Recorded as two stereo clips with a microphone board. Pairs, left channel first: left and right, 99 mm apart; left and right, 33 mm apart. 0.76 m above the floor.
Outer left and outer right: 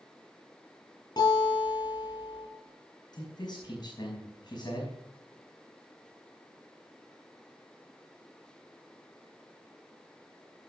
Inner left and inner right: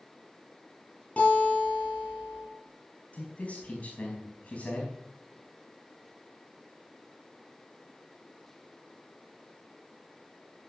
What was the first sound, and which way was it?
A guitar, 45° left (ahead or behind).